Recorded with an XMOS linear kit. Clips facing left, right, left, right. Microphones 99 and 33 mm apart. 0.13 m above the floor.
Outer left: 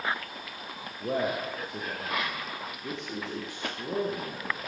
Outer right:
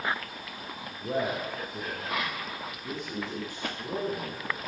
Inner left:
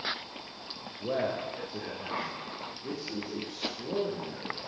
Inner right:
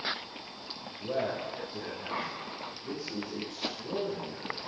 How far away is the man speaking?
About 8.5 m.